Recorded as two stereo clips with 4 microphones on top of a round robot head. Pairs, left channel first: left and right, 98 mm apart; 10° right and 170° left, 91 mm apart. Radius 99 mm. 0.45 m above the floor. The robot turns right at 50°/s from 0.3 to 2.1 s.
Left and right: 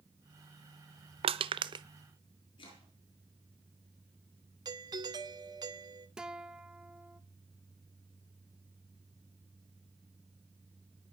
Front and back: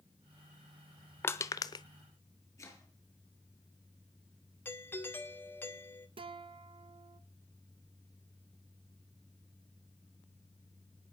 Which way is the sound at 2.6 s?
45° left.